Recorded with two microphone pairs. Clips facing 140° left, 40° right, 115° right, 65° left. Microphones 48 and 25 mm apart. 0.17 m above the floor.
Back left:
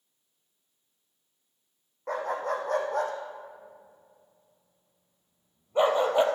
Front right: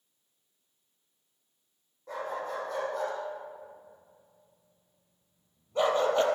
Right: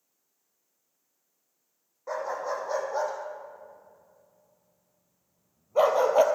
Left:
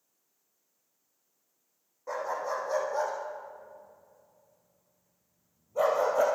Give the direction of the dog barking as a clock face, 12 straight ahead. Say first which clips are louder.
Back left 5 dB, right 1 dB; 6 o'clock.